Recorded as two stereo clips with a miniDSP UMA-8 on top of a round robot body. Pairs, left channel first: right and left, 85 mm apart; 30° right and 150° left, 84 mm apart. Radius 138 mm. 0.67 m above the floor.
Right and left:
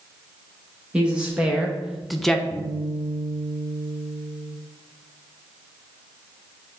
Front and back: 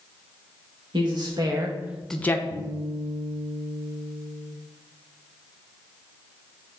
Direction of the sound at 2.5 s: 175° left.